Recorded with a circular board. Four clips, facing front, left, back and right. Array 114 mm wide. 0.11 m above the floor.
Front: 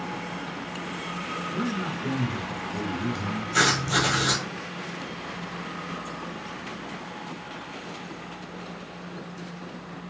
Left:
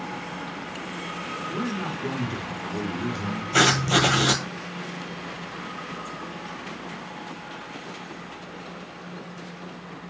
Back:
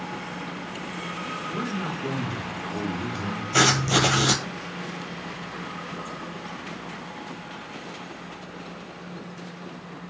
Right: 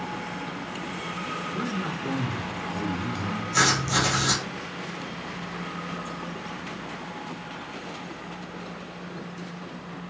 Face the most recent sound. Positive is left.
turn(degrees=130)